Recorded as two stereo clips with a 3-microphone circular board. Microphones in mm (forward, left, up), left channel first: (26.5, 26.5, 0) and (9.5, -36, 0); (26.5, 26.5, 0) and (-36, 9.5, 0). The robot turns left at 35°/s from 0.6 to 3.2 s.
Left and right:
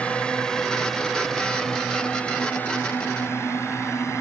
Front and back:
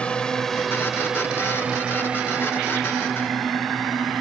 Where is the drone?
50° left; by 4.2 s 105° left.